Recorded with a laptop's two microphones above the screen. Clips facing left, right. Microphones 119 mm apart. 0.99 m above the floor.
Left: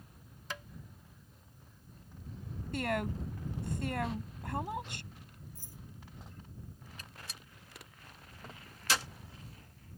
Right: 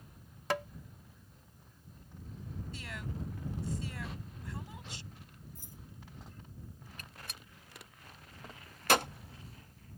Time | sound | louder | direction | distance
0.5 | tapping | right 11 dB | 70° right (ahead or behind) | ?
2.7 | a woman speaking | left 13 dB | 60° left (ahead or behind) | ?
5.5 | keys jangling | even | 20° right (ahead or behind) | ?
7.0 | a gunshot | even | 55° right (ahead or behind) | ?